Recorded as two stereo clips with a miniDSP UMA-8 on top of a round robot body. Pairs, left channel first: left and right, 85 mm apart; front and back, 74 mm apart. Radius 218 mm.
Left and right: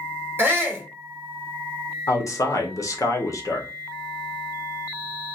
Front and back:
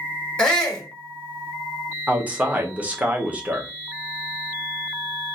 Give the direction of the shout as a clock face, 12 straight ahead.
2 o'clock.